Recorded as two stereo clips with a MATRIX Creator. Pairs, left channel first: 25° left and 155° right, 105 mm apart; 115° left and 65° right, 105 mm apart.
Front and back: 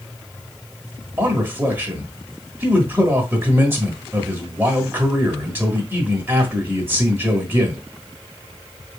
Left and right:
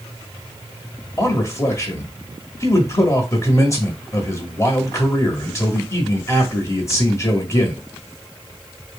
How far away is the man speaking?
About 1.2 m.